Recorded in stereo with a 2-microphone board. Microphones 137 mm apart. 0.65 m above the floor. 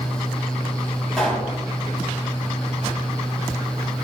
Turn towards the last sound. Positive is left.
turn(degrees=5)  # may be behind; listen again after turning